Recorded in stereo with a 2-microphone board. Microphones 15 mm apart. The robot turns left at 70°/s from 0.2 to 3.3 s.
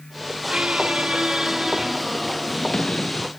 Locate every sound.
0.5 s a squeak: 70° right; by 3.3 s 90° left